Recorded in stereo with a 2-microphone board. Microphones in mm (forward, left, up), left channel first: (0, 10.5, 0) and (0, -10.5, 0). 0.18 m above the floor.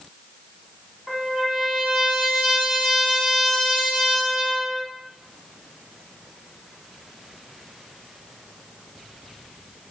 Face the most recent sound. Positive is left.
turn(degrees=-25)  # may be behind; listen again after turning